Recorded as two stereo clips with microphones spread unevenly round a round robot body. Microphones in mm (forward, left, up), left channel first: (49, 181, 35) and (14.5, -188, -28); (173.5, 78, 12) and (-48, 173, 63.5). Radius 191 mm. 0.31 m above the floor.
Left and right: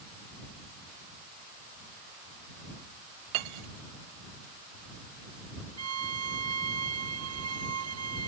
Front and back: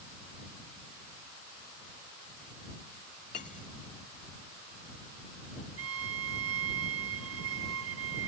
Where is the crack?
No crack in this recording.